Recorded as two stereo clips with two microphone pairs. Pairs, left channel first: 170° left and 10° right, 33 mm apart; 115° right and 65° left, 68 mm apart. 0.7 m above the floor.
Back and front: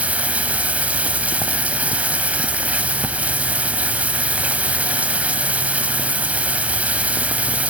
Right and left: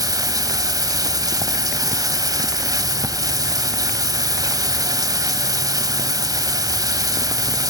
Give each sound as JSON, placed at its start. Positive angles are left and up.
{"t": 0.0, "sound": "running water", "azimuth_deg": 40, "distance_m": 1.7}